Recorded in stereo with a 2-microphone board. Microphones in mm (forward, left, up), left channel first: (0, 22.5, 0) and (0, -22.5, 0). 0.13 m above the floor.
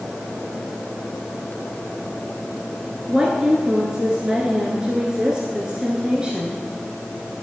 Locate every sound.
3.1 s a woman speaking: 20° right (ahead or behind), 1.5 m